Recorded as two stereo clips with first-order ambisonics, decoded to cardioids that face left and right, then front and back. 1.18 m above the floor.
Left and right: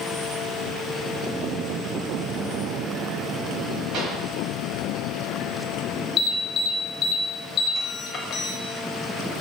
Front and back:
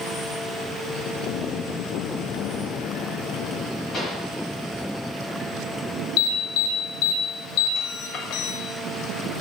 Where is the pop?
70° right, 1.4 m.